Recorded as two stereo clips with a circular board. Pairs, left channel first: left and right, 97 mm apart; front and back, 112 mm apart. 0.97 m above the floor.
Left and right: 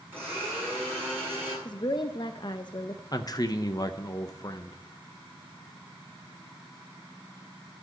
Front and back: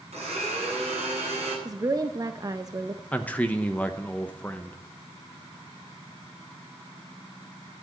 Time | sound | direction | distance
0.1 | a blender | 160° right | 8 m
1.6 | a woman speaking | 125° left | 0.5 m
3.1 | a man speaking | 70° left | 0.7 m